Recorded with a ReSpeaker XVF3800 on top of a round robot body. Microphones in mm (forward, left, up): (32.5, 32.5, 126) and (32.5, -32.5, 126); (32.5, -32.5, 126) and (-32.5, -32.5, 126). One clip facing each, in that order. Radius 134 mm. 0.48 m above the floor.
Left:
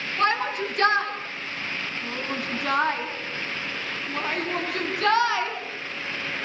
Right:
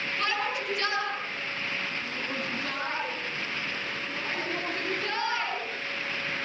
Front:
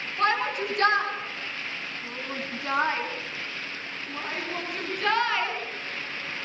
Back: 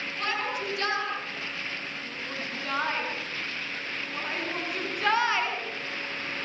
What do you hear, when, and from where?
0.2 s a shout: 45° left, 9 m; by 6.5 s 105° left, 8.5 m